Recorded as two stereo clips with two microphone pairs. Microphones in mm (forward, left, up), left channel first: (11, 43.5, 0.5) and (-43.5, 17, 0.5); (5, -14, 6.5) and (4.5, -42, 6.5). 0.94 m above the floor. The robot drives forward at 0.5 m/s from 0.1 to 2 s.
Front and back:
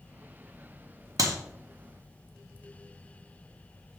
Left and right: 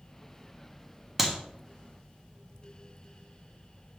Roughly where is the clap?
Behind.